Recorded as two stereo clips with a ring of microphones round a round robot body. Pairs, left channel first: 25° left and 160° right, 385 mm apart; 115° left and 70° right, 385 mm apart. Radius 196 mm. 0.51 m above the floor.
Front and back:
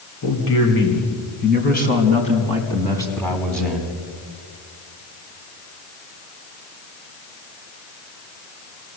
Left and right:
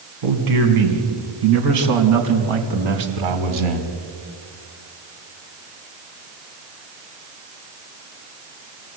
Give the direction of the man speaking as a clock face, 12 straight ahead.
1 o'clock.